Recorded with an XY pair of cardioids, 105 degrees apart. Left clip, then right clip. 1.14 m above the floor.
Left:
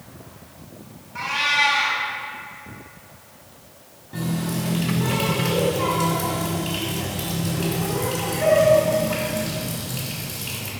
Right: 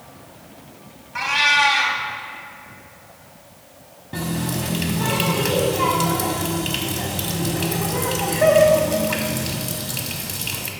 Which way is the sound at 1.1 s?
65° right.